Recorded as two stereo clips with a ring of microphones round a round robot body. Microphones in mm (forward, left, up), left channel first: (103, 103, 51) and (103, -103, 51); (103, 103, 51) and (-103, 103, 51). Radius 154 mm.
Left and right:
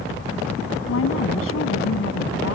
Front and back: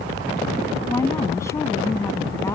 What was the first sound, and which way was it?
A woman speaking, 75° left.